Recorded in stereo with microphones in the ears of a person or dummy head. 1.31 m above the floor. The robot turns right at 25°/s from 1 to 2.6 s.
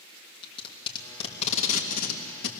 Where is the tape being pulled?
30° left (ahead or behind), 2.5 m; by 2.5 s 65° left (ahead or behind), 2.5 m.